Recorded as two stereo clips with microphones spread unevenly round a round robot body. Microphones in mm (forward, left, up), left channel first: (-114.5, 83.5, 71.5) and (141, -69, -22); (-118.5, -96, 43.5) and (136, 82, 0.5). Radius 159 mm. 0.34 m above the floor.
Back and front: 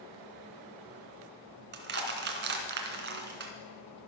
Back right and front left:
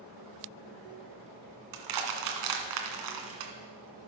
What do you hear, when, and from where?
1.7 s crushing: 20° left, 2 m